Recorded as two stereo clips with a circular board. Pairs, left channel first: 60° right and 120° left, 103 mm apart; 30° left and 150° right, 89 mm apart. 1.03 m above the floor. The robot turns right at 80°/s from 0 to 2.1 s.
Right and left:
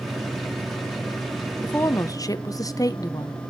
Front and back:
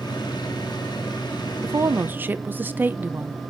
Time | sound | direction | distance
1.6 | a woman speaking | 130° right | 0.6 m